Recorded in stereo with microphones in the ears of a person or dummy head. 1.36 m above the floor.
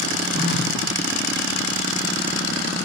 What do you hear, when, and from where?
0.3 s a phone buzzing: 55° left (ahead or behind), 3 m